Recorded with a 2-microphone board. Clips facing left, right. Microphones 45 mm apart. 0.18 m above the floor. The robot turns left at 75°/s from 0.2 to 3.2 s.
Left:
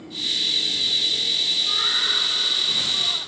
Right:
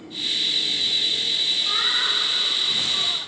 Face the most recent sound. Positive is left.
turn(degrees=180)